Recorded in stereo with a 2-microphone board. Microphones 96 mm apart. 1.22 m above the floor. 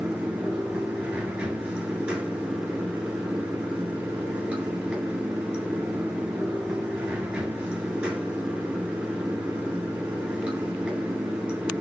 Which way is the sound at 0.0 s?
15° right (ahead or behind).